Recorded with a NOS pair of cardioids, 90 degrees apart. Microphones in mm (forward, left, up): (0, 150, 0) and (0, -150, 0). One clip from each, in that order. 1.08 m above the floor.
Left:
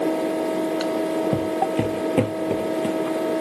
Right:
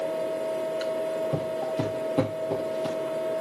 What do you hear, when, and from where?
0.0 s a fan: 60° left, 0.8 m
1.3 s footsteps: 70° left, 3.5 m